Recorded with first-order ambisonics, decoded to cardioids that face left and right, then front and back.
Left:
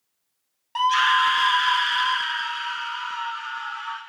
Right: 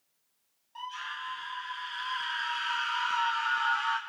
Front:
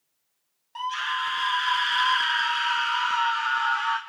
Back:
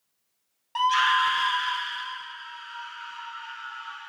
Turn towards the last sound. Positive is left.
turn(degrees=-10)